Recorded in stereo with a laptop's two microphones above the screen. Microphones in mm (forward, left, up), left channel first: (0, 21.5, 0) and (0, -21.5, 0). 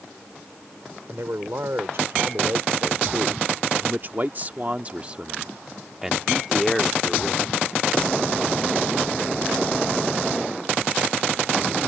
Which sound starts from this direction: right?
A man speaking, at 1.1 s.